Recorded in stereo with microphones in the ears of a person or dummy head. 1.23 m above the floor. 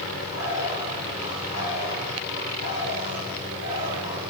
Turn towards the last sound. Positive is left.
turn(degrees=75)  # may be behind; listen again after turning